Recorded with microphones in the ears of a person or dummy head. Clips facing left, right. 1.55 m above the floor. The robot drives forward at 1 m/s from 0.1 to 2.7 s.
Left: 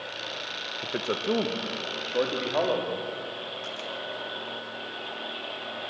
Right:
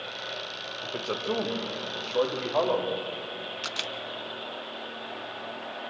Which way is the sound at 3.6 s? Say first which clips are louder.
Left 1 dB; 75° right (ahead or behind).